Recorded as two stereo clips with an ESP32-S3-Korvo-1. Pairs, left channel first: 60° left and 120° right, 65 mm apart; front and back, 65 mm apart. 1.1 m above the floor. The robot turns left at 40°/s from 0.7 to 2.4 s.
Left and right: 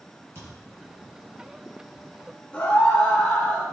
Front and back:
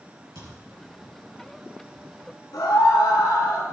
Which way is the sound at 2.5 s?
10° right.